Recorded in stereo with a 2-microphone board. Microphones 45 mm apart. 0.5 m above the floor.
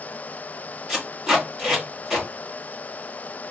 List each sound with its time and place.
0.9 s tape being pulled: 10° right (ahead or behind), 4 m